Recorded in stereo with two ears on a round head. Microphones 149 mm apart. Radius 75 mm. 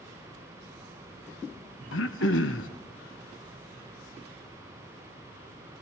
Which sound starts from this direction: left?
Throat clearing, at 1.9 s.